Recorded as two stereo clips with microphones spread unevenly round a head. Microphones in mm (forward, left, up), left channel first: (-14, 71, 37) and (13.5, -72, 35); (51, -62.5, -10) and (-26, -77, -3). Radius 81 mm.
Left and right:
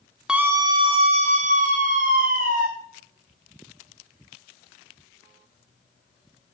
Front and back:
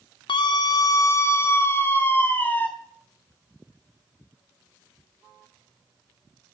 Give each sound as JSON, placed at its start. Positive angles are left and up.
{"t": 0.3, "sound": "a scream", "azimuth_deg": 5, "distance_m": 0.9}